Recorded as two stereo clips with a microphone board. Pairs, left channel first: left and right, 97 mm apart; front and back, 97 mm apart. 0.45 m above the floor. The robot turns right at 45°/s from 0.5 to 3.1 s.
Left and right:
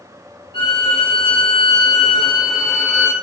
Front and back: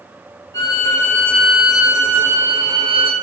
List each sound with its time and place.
0.5 s a violin: 55° left, 2 m; by 3.1 s 170° left, 2 m